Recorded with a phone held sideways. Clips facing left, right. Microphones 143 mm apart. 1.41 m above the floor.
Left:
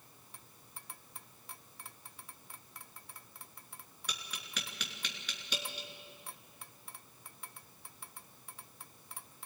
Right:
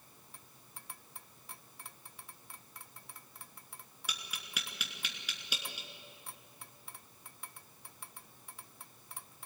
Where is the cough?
I don't hear a cough.